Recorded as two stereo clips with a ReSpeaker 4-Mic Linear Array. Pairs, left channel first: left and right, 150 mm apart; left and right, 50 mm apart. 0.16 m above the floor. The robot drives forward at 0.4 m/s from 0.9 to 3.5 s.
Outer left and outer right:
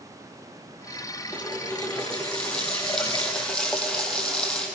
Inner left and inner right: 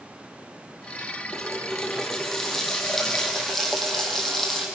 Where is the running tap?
5° left (ahead or behind), 3 m.